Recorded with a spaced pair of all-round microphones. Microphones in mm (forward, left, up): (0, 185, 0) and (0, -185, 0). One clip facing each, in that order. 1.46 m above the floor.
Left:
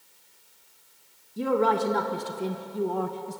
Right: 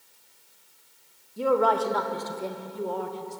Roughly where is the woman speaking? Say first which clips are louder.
Right 1 dB; left.